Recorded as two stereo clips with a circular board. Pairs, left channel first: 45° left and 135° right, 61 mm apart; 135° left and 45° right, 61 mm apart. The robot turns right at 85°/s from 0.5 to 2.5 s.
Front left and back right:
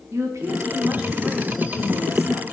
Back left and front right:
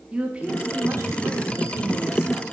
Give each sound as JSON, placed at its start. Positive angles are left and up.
{"t": 0.1, "sound": "a woman speaking", "azimuth_deg": -115, "distance_m": 0.8}